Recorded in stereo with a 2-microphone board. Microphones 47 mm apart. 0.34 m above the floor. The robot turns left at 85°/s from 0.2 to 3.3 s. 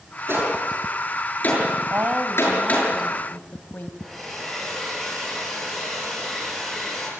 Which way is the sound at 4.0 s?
5° left (ahead or behind).